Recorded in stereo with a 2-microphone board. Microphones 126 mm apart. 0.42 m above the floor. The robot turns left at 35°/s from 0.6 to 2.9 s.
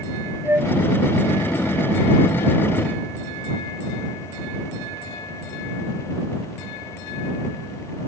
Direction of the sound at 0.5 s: 15° right (ahead or behind).